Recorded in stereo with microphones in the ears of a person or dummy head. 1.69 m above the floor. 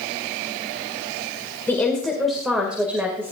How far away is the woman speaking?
About 2 m.